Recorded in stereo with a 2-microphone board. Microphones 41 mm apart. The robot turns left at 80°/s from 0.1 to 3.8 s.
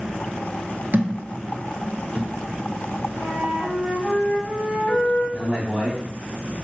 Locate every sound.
0.9 s a thud: 55° right (ahead or behind), 0.6 m; by 2.3 s 20° right (ahead or behind), 0.6 m
3.2 s a flute: 75° left, 1.9 m; by 5.2 s 25° left, 1.9 m
5.3 s a man speaking: 25° right (ahead or behind), 1.3 m